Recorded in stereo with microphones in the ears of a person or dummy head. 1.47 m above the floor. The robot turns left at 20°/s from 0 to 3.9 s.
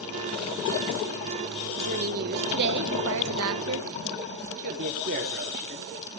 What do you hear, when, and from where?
1.8 s a woman speaking: 45° right, 1.7 m; by 3.9 s 85° right, 1.7 m
4.6 s a man speaking: 45° right (ahead or behind), 3 m